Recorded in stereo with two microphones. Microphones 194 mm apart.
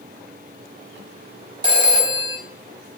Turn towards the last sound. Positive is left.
turn(degrees=-25)  # may be behind; listen again after turning